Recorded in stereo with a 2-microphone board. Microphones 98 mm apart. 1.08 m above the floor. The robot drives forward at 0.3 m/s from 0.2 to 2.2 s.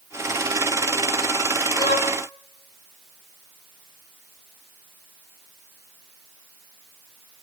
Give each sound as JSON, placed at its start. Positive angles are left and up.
{"t": 1.8, "sound": "a violin", "side_deg": 50, "distance_m": 1.9}